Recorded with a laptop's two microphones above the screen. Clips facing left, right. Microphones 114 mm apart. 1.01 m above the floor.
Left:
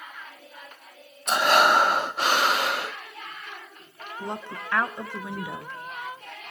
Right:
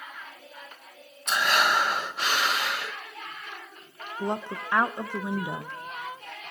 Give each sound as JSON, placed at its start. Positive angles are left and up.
{"t": 1.3, "sound": "breathing", "side_deg": 40, "distance_m": 0.5}
{"t": 4.2, "sound": "a woman speaking", "side_deg": -20, "distance_m": 0.6}